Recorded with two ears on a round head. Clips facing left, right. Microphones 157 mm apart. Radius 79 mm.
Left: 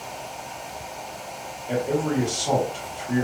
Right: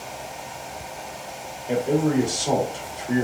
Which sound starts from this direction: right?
A man speaking, at 1.7 s.